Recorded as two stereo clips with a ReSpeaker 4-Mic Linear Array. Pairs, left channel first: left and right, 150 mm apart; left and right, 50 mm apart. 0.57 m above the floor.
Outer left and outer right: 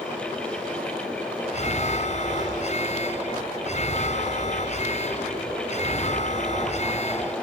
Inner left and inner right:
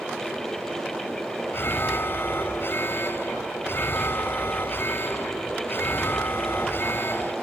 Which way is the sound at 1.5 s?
50° left (ahead or behind).